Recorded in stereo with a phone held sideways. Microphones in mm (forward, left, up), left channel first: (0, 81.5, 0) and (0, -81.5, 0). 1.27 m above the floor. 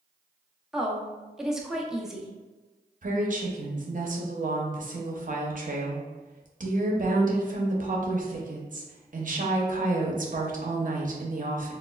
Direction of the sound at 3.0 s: 55° right (ahead or behind).